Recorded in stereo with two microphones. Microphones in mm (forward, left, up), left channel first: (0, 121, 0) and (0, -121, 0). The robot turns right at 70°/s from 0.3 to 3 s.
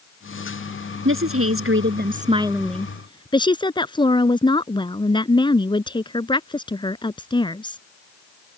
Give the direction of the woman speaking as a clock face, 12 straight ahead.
4 o'clock.